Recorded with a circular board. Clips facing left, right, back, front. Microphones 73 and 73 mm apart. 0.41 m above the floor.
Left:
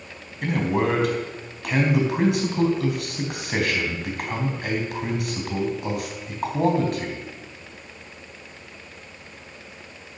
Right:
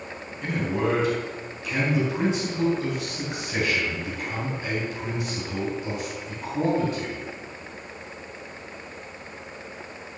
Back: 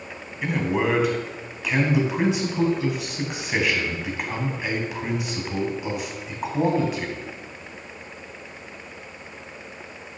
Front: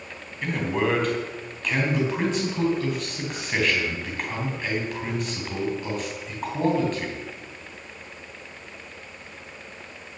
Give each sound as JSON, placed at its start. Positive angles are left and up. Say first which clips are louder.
{"t": 0.4, "sound": "a man speaking", "louder": "left 3 dB, back 1 dB", "azimuth_deg": 100, "distance_m": 3.5}